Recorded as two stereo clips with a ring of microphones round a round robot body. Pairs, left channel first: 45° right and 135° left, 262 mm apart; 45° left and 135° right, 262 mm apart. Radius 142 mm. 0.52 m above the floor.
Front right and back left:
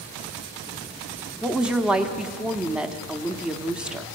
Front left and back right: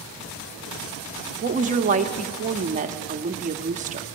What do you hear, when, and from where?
1.4 s a woman speaking: 140° right, 1.0 m